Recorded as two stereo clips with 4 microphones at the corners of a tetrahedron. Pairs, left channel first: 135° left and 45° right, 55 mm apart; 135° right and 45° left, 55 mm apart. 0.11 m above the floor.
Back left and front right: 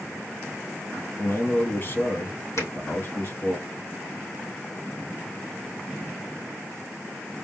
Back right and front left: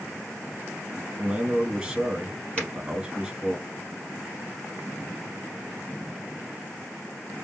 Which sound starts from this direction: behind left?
A man speaking, at 1.2 s.